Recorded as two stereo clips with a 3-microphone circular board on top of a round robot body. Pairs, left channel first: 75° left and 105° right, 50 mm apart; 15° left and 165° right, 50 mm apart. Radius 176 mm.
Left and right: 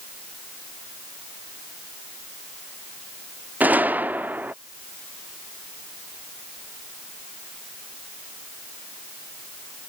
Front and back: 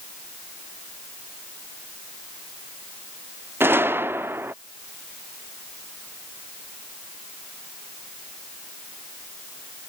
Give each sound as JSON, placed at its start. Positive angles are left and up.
{"t": 3.6, "sound": "a gunshot", "azimuth_deg": -150}